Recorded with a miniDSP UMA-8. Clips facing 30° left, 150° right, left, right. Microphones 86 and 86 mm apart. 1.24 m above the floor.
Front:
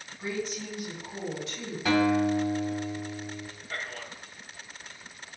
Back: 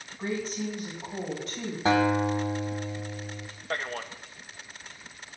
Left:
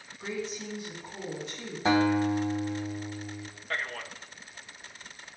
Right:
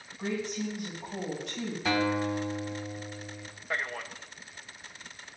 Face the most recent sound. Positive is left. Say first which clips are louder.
# back 6 dB, right 1 dB
turn(degrees=-165)